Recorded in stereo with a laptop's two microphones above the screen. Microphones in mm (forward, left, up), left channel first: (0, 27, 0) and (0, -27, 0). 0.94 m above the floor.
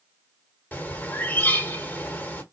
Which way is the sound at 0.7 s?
35° left (ahead or behind).